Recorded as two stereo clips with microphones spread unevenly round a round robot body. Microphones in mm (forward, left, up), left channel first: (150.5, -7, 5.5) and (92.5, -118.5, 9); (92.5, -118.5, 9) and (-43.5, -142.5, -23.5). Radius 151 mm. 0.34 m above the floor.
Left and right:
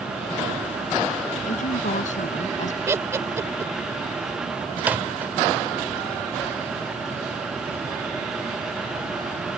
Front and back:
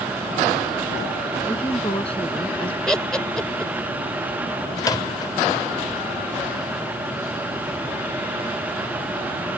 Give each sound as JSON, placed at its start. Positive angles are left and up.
{"t": 1.5, "sound": "a woman speaking", "azimuth_deg": 85}
{"t": 2.9, "sound": "laughter", "azimuth_deg": -105}
{"t": 4.8, "sound": "a microwave", "azimuth_deg": -55}